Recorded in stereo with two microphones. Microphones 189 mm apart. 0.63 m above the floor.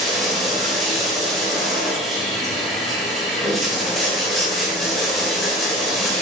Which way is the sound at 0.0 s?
Centre (ahead or behind).